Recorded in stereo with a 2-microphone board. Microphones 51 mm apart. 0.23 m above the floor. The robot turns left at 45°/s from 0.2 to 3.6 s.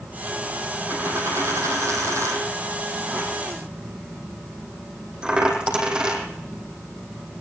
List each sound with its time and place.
0.9 s a dropped coin: 40° right (ahead or behind), 5.5 m; by 6.2 s 15° right (ahead or behind), 5.5 m